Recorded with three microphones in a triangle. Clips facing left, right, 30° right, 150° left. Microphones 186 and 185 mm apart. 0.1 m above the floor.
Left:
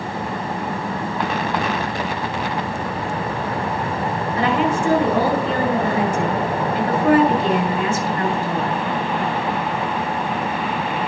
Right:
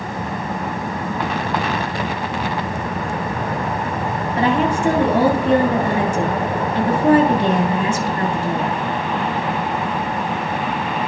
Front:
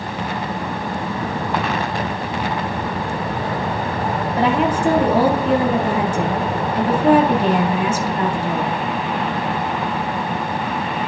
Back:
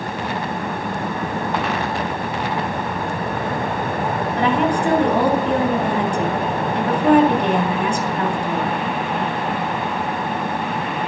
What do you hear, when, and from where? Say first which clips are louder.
4.4 s a woman speaking: right 2 dB, front 1 dB; 110° right, 1.8 m